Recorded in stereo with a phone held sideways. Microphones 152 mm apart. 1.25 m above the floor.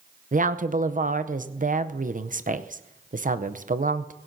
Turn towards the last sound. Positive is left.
turn(degrees=-60)  # may be behind; listen again after turning